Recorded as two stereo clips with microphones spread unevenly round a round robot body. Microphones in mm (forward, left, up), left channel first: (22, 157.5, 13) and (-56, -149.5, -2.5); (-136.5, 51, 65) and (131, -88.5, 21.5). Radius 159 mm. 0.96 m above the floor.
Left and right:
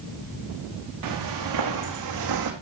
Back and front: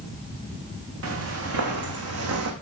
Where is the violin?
I don't hear a violin.